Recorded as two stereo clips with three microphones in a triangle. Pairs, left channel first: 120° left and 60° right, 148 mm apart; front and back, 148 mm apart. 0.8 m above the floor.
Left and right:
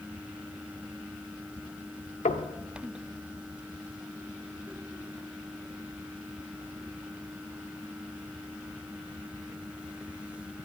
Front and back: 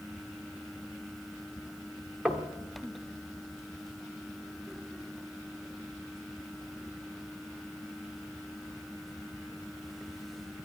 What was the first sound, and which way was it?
Knocking, 95° left.